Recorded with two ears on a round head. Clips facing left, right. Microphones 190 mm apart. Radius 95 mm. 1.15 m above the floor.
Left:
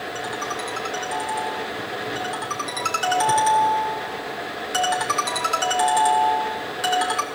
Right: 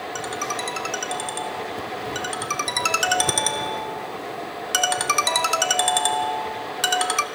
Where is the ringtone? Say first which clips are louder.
Right 1 dB; 45° right (ahead or behind), 1.0 m.